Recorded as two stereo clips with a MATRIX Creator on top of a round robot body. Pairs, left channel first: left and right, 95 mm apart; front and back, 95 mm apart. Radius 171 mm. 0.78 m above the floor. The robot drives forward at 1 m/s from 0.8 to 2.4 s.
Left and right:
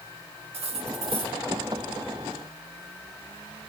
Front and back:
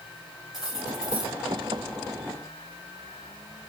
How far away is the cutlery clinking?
About 3 m.